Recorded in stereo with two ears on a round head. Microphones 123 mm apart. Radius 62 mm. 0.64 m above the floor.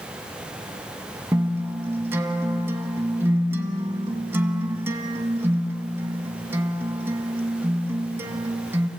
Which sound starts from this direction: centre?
A guitar, at 1.3 s.